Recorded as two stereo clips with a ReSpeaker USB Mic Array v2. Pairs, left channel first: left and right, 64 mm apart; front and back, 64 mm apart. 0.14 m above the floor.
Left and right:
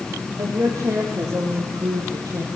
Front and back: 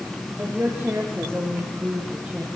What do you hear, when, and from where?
0.4 s a woman speaking: 115° right, 5.5 m; by 2.5 s 105° right, 4 m